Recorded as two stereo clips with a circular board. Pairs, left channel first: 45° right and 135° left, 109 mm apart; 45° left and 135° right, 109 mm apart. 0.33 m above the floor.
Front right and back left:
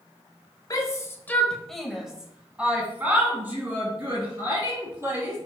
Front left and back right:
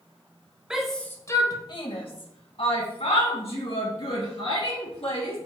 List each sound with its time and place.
0.7 s a shout: 55° right, 1.0 m; by 5.4 s 65° left, 5 m